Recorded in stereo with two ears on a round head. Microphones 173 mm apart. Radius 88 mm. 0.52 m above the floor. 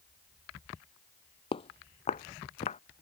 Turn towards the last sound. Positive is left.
turn(degrees=35)  # may be behind; listen again after turning